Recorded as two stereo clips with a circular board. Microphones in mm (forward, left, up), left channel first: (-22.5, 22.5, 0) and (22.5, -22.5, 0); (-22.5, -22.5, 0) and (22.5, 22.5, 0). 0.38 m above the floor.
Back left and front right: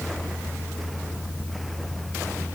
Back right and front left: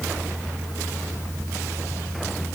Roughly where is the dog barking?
No dog barking in this recording.